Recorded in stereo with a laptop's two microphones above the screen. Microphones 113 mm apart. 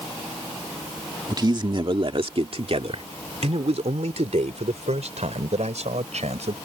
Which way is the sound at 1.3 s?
35° right (ahead or behind).